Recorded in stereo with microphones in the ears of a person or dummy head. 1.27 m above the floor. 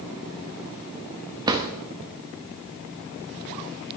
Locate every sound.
1.5 s a drawer: 15° right (ahead or behind), 0.7 m